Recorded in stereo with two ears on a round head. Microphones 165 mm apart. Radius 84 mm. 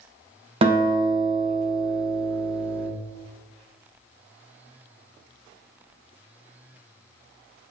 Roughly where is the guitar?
Right.